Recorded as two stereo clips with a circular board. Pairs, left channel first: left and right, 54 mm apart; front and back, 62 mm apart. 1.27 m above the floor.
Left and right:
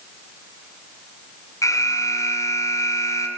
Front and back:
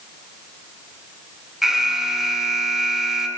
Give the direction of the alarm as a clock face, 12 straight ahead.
9 o'clock.